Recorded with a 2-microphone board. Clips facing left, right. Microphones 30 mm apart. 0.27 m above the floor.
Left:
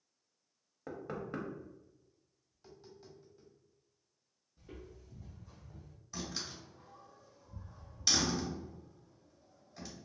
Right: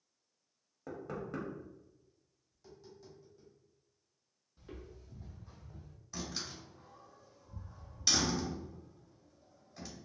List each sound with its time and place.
0.9 s knocking: 25° left (ahead or behind), 0.6 m
2.5 s tapping: 25° left (ahead or behind), 1.3 m
4.6 s footsteps: 70° right (ahead or behind), 0.7 m; by 6.0 s 35° right (ahead or behind), 1.2 m
6.1 s a door slam: 5° right (ahead or behind), 1.7 m